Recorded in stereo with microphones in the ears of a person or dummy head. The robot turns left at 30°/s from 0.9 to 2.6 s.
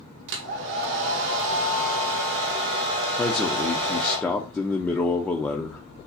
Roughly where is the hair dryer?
Right.